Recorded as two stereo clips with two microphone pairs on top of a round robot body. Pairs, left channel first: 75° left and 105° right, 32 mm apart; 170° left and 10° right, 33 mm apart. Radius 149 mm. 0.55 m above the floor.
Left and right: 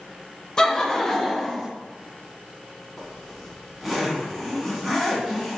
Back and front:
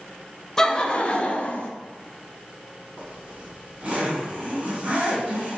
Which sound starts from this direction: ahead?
A zipper, at 3.0 s.